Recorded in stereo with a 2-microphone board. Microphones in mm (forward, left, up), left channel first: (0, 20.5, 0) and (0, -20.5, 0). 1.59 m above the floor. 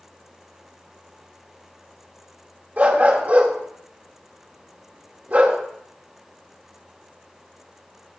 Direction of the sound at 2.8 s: 40° right (ahead or behind).